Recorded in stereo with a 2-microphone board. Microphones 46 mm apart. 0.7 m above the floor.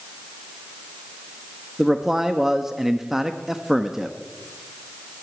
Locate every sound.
1.8 s a man speaking: 10° right (ahead or behind), 0.7 m